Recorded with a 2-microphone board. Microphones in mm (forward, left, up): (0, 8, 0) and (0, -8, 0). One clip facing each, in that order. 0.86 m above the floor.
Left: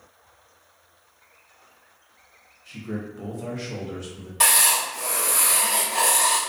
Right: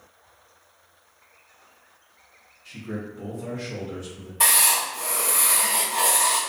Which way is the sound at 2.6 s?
20° right (ahead or behind).